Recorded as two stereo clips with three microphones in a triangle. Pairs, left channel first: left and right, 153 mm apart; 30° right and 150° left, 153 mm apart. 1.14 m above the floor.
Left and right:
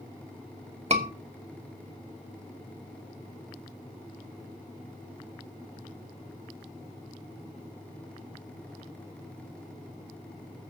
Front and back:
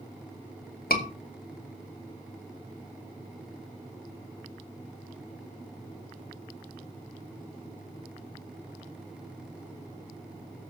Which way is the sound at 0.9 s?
45° right.